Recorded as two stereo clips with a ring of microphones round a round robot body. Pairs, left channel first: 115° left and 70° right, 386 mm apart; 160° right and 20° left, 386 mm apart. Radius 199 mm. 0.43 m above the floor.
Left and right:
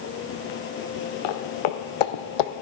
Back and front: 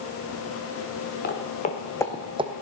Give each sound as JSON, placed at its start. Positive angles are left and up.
{"t": 1.2, "sound": "footsteps", "azimuth_deg": 135, "distance_m": 2.5}